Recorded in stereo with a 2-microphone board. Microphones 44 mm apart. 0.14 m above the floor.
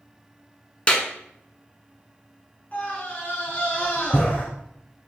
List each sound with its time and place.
0.9 s a clap: 25° left (ahead or behind), 1.0 m
2.7 s a scream: 40° left (ahead or behind), 1.5 m